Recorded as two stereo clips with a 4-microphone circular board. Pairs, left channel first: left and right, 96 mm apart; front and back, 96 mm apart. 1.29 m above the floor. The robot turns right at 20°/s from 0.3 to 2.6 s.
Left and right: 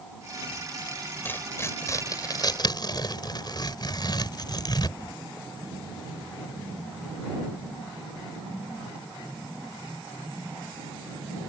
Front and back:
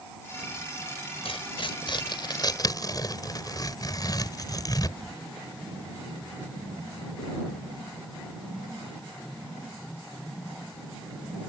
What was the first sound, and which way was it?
Tearing paper, 20° left.